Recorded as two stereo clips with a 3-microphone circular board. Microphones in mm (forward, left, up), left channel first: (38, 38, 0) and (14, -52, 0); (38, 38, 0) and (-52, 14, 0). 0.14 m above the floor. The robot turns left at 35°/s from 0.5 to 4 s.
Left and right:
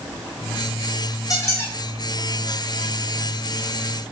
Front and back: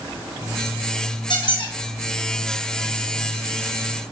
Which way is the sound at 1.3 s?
30° left.